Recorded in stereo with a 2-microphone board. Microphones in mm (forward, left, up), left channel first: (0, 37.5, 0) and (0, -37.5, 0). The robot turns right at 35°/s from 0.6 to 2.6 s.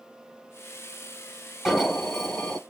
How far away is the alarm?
About 1.2 m.